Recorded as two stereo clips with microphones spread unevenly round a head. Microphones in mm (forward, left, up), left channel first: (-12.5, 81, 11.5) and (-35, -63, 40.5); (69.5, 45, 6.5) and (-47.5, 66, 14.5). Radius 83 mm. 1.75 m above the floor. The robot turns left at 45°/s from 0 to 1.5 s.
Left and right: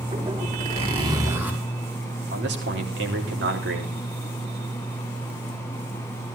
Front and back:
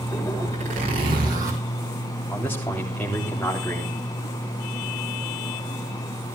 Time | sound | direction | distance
0.5 | a zipper | 135° right | 4.5 m
2.3 | a man speaking | 95° right | 3.5 m